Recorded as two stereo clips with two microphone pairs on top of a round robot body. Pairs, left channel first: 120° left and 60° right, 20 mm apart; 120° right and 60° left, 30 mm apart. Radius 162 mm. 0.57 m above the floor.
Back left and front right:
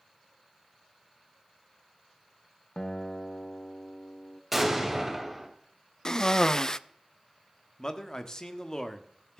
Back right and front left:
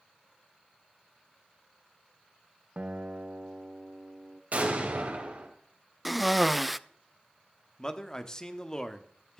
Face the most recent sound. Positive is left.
turn(degrees=175)